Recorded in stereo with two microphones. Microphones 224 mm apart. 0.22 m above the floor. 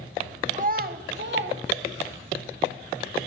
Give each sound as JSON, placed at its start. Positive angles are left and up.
{"t": 0.5, "sound": "a child speaking", "side_deg": -35, "distance_m": 0.7}